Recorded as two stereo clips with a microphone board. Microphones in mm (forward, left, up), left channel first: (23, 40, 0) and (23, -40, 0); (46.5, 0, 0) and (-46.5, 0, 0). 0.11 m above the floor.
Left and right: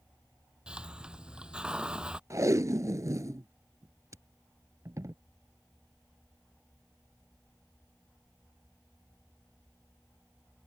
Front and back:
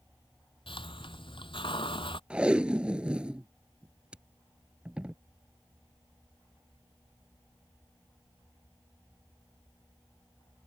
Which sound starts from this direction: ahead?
A hiss, at 0.7 s.